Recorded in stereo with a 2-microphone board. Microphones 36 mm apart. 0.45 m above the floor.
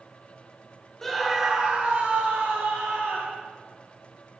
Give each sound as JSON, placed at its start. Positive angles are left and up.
{"t": 1.0, "sound": "a scream", "side_deg": 10, "distance_m": 1.1}